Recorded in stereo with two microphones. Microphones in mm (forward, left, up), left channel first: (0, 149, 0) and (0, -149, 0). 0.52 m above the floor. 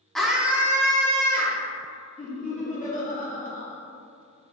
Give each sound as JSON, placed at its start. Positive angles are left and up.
{"t": 0.1, "sound": "a scream", "side_deg": 0, "distance_m": 0.7}
{"t": 2.2, "sound": "laughter", "side_deg": 25, "distance_m": 1.2}